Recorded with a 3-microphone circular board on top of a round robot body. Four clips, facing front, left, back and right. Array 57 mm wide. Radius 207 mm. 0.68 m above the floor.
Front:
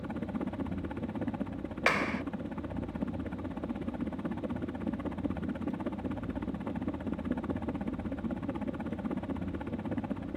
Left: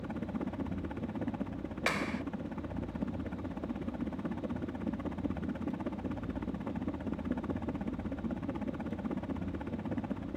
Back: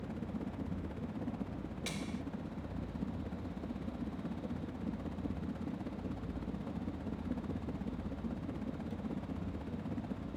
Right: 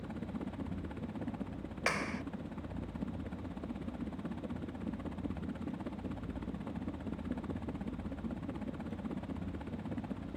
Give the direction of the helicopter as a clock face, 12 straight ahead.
11 o'clock.